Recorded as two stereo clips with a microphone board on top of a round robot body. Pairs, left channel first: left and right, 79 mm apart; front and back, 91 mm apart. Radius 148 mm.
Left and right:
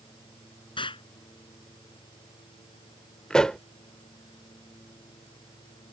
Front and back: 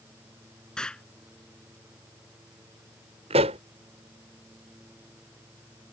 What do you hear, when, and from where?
0.8 s an explosion: 80° left
3.3 s a pop: 175° left